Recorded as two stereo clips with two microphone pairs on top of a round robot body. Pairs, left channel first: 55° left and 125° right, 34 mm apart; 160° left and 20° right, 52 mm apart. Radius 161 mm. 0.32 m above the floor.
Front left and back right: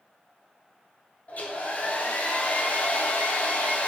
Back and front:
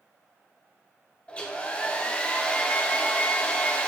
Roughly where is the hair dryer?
Left.